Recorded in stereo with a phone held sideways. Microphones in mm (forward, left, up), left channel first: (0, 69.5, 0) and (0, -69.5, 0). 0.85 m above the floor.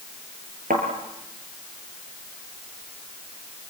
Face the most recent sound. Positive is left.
turn(degrees=-85)